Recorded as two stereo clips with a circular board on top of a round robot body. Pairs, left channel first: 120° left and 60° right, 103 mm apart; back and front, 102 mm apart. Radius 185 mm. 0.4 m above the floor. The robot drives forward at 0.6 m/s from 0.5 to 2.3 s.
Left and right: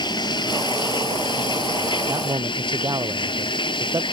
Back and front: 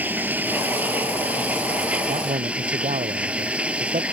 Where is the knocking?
I don't hear knocking.